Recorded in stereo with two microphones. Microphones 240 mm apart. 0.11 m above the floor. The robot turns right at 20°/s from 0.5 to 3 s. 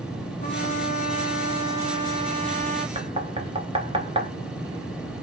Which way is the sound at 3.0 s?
25° right (ahead or behind).